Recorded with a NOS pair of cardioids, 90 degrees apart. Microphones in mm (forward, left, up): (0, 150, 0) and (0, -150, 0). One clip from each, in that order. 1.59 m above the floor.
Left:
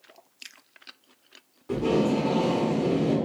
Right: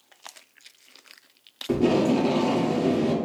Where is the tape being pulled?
50° right, 1.1 m.